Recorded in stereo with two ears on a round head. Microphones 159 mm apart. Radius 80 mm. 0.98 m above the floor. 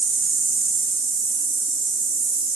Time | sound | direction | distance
0.0 | an insect | 30° right (ahead or behind) | 2.5 m